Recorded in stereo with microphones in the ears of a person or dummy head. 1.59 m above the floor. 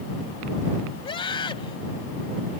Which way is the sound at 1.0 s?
25° left (ahead or behind).